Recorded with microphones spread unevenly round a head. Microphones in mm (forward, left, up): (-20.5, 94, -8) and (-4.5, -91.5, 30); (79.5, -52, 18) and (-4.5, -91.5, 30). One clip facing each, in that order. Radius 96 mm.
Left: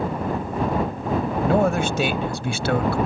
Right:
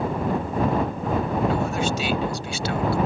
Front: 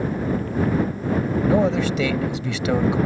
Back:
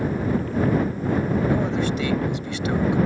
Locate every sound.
1.5 s a man speaking: 50° left